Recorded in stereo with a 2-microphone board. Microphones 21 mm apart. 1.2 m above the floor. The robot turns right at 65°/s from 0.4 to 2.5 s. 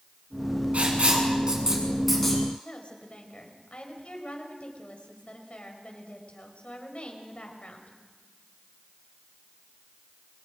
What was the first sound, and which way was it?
Writing, 90° right.